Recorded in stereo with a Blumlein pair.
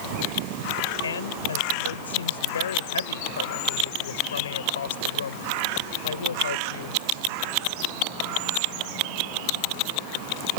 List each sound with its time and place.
1.0 s a woman speaking: 65° left